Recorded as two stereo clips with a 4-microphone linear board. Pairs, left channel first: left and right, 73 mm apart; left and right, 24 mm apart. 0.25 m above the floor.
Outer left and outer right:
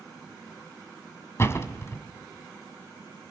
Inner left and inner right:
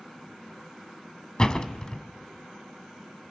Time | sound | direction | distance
1.4 | a door slam | 35° left (ahead or behind) | 1.5 m